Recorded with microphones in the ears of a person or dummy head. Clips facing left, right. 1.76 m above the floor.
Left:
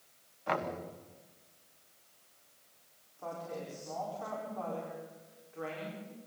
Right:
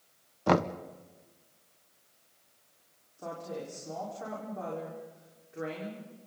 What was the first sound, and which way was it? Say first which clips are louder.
Knocking: right 9 dB; 65° right (ahead or behind).